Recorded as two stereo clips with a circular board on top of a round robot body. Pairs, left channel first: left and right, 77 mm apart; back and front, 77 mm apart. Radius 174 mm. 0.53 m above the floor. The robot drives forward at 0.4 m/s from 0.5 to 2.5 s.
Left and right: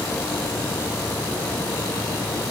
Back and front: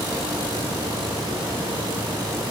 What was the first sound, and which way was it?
Only background noise.